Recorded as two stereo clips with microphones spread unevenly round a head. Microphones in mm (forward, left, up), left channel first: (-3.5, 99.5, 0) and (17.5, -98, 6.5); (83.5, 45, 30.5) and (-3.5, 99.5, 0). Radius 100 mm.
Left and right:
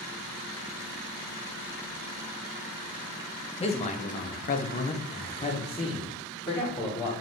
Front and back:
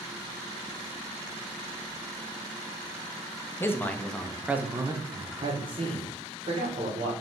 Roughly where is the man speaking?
Ahead left.